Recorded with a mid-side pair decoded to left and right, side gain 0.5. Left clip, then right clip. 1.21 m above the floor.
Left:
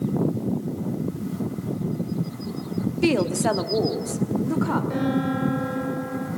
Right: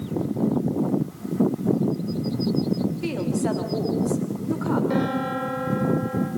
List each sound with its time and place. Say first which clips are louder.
3.0 s a woman speaking: left 9 dB; 55° left, 1.8 m; by 4.8 s 25° left, 3.5 m
4.9 s a piano: right 1 dB; 40° right, 5.5 m